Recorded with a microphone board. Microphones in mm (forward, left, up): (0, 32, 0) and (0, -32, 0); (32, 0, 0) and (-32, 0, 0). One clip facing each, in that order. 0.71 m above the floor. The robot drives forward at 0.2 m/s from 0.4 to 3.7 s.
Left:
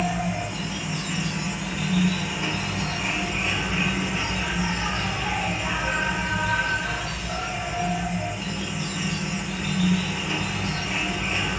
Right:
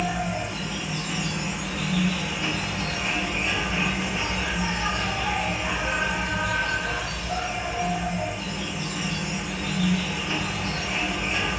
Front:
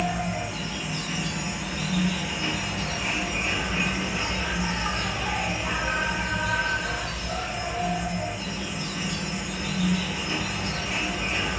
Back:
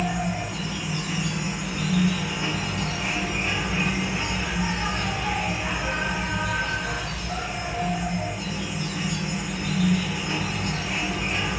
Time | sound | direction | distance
0.0 | an insect | 120° left | 1.2 m